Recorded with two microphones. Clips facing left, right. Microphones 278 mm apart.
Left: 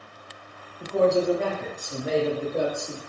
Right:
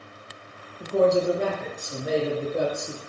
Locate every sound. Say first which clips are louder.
0.8 s a man speaking: right 1 dB; 25° right (ahead or behind), 1.0 m; by 3.0 s 10° left (ahead or behind), 1.5 m